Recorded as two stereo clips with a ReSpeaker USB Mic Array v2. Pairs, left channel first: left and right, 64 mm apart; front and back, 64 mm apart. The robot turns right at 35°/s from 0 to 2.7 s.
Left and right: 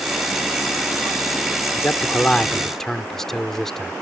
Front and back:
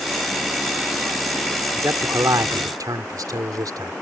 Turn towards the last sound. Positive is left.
turn(degrees=175)